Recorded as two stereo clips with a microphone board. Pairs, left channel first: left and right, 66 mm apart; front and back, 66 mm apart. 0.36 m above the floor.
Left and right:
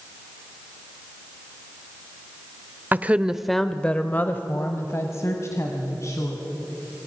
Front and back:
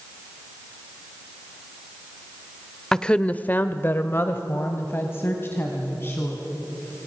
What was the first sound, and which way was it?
A woman speaking, 70° right.